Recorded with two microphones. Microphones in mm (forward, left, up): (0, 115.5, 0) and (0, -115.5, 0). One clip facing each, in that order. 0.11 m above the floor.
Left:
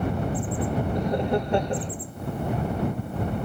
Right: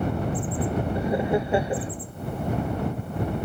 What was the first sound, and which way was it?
Laughter, 5° right (ahead or behind).